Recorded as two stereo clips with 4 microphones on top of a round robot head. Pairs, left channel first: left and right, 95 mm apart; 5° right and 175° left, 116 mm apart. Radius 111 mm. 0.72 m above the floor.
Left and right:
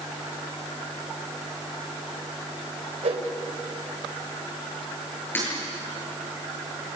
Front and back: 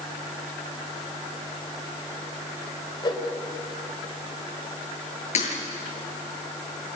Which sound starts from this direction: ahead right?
A whoosh, at 3.0 s.